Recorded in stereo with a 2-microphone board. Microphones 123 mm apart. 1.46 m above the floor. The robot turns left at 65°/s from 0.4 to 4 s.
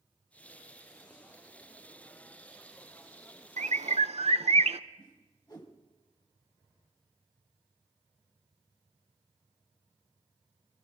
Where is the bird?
75° right (ahead or behind), 0.5 m; by 4.8 s 60° right (ahead or behind), 0.5 m.